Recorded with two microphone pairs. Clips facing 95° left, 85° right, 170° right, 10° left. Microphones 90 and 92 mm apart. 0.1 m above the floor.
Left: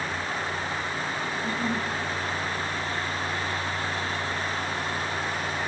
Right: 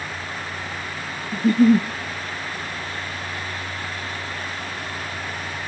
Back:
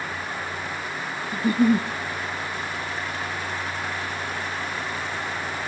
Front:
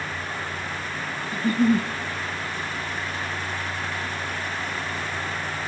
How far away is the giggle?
About 1.1 m.